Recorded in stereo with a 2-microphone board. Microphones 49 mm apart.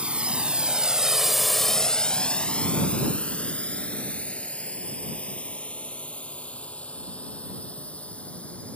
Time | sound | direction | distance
0.0 | a drone | 25° right (ahead or behind) | ?